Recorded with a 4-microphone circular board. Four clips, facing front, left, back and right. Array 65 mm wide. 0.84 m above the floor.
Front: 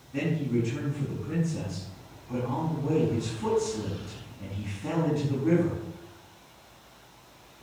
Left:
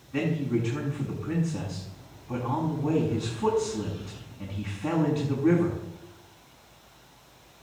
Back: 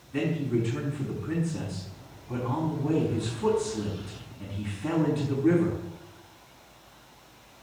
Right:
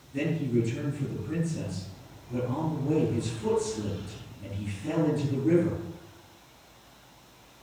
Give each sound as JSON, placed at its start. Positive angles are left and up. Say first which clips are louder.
{"t": 0.1, "sound": "a man speaking", "louder": "even, back 1 dB", "azimuth_deg": 90, "distance_m": 6.5}